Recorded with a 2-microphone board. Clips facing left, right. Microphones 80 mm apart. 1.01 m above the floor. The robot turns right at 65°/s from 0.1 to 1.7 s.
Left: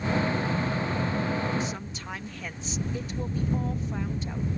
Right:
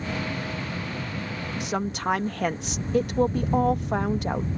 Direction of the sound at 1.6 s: 60° right (ahead or behind).